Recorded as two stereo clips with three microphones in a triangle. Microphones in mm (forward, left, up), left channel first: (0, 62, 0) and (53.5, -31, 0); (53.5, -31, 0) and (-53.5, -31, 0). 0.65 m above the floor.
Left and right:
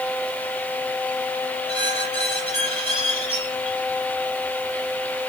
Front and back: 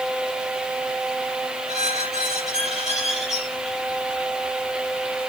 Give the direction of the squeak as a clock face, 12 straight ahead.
9 o'clock.